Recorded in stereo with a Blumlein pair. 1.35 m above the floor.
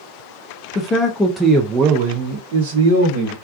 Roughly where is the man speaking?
Ahead left.